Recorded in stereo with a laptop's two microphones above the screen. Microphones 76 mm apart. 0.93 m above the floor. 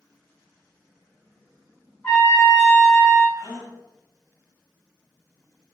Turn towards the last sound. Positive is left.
turn(degrees=55)  # may be behind; listen again after turning